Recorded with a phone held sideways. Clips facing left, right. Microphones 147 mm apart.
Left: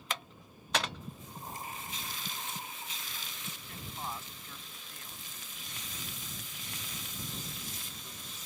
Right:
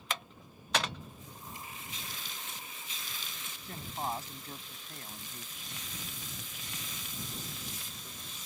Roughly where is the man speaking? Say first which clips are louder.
Right 6 dB; right.